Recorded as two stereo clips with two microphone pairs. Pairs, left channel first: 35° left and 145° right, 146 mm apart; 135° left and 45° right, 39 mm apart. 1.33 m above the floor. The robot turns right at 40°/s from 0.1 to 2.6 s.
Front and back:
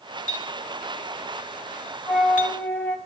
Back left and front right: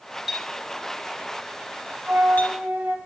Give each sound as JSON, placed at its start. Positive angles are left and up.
{"t": 0.3, "sound": "a clink", "azimuth_deg": 45, "distance_m": 2.5}
{"t": 2.1, "sound": "a flute", "azimuth_deg": -65, "distance_m": 1.9}